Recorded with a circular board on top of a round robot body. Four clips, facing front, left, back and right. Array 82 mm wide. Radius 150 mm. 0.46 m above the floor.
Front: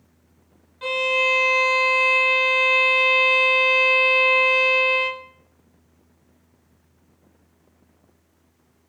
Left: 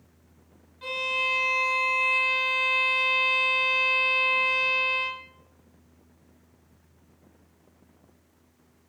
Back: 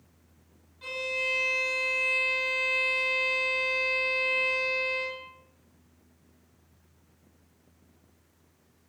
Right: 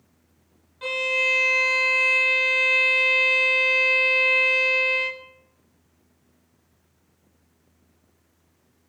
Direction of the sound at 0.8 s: 30° right.